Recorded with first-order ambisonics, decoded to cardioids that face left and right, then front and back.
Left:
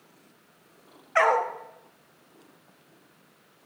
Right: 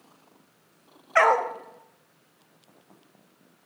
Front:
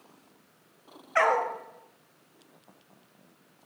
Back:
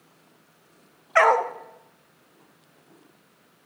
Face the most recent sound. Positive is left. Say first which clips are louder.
# right 2 dB, back 6 dB
turn(degrees=-155)